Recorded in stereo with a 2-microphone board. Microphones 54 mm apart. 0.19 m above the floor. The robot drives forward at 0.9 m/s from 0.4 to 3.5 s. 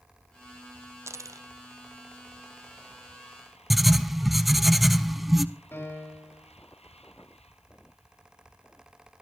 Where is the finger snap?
I don't hear a finger snap.